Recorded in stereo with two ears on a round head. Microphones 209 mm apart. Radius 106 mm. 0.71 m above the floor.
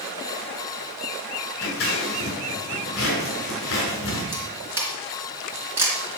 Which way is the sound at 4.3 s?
10° right (ahead or behind).